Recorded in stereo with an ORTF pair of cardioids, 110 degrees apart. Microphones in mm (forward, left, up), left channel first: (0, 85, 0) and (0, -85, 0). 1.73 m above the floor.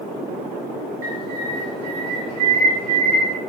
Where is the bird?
60° right, 0.8 m.